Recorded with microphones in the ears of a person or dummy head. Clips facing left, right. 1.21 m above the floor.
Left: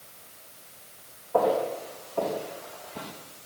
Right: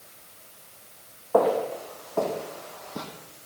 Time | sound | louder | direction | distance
1.3 | footsteps | right 2 dB | 75° right (ahead or behind) | 4.5 m